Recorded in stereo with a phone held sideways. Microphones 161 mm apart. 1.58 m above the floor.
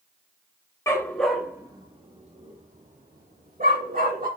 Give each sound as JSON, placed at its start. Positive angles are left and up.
{"t": 0.9, "sound": "a dog barking", "side_deg": 20, "distance_m": 1.2}